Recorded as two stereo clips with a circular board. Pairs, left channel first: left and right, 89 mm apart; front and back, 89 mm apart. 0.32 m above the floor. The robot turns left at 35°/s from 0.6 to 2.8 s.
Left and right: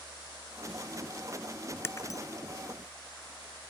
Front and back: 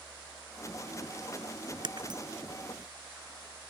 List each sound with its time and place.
1.8 s breaking glass: 155° left; by 2.2 s 140° left